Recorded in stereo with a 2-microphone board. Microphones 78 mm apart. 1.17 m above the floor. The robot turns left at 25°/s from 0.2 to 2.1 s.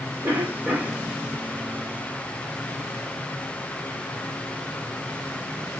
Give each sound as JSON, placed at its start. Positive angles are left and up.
{"t": 0.2, "sound": "a cough", "side_deg": -35, "distance_m": 3.0}